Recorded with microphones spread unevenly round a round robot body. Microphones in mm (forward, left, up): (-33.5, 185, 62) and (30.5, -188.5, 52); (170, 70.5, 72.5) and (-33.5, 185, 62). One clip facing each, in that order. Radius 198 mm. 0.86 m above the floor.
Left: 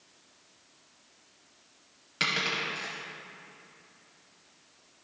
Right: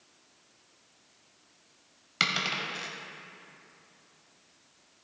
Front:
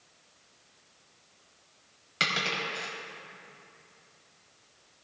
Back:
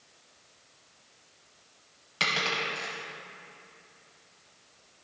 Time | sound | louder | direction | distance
2.2 | a dropped coin | left 2 dB, back 1 dB | 55° right | 0.7 m